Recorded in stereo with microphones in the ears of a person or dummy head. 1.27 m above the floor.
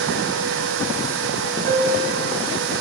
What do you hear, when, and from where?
1.7 s a piano: 55° right (ahead or behind), 1.2 m